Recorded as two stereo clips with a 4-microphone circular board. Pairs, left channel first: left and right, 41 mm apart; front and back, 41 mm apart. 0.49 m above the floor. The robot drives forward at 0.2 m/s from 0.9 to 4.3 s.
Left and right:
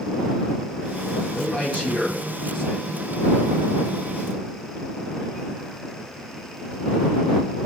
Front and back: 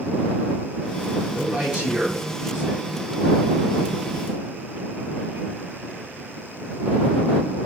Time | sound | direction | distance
1.3 | a man speaking | 130° left | 1.1 m